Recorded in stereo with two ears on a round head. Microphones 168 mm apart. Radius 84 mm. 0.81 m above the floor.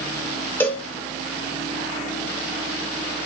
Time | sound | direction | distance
0.6 | a cowbell | 10° left (ahead or behind) | 1.1 m